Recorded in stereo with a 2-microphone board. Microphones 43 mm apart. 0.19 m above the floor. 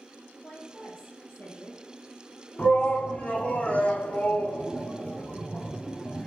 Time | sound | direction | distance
0.4 | a woman speaking | 35° left (ahead or behind) | 4.5 m
2.6 | a shout | 30° left (ahead or behind) | 1.5 m